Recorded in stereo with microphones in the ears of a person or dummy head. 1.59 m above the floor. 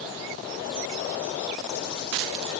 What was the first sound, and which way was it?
Only background noise.